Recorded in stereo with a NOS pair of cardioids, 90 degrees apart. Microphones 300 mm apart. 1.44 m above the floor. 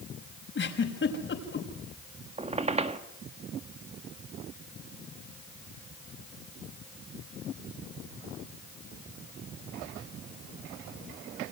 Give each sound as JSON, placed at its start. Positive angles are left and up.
{"t": 0.6, "sound": "a giggle", "azimuth_deg": 40, "distance_m": 6.0}
{"t": 2.4, "sound": "a squeak", "azimuth_deg": -20, "distance_m": 2.0}